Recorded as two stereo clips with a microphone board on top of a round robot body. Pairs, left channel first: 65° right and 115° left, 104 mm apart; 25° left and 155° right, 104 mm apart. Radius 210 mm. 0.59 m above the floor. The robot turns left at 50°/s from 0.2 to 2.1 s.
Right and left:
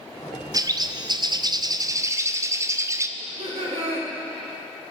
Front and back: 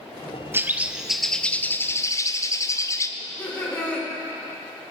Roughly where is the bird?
Behind left.